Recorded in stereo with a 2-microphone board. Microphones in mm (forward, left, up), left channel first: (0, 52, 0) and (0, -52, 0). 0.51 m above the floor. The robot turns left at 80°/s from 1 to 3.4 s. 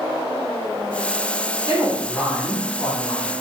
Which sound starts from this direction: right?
A woman speaking, at 1.7 s.